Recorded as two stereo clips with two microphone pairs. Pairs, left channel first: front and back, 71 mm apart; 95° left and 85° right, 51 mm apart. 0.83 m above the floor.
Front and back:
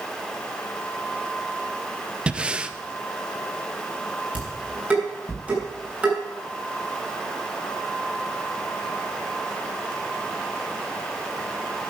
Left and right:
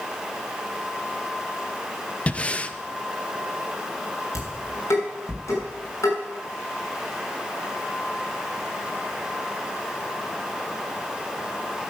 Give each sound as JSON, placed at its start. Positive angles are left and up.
{"t": 2.3, "sound": "breathing", "azimuth_deg": 125, "distance_m": 0.6}
{"t": 4.3, "sound": "dishes clattering", "azimuth_deg": 110, "distance_m": 6.5}